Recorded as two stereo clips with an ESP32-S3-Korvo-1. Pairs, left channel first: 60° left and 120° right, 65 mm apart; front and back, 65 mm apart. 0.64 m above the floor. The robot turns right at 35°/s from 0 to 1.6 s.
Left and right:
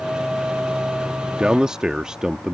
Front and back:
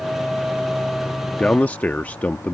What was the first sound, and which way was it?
A man speaking, 60° right.